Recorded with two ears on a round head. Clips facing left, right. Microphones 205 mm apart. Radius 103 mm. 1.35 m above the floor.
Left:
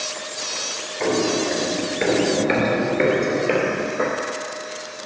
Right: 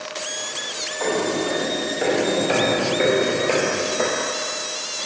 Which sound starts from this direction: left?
Footsteps, at 1.0 s.